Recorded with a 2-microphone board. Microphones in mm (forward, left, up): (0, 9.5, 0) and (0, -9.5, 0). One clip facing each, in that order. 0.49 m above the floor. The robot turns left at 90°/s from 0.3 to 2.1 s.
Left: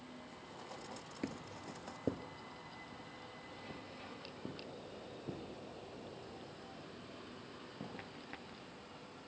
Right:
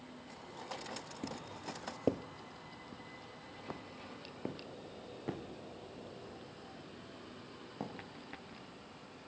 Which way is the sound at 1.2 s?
45° left (ahead or behind).